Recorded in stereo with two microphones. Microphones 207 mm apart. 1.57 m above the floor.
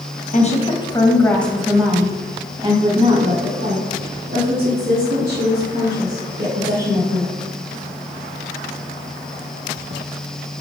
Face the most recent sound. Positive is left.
turn(degrees=-55)  # may be behind; listen again after turning